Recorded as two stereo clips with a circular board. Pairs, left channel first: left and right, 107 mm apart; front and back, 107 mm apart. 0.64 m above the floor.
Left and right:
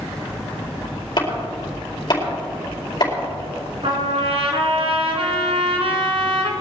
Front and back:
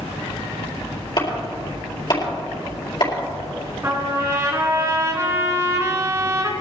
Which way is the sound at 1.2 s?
45° left.